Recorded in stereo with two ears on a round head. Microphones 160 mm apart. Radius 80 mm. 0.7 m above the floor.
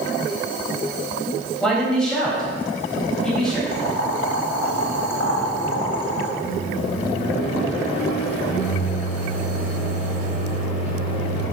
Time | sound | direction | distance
1.6 | a man speaking | 5° left (ahead or behind) | 4.5 m
3.7 | boiling | 75° left (ahead or behind) | 3 m
6.4 | a microwave | 35° left (ahead or behind) | 5.5 m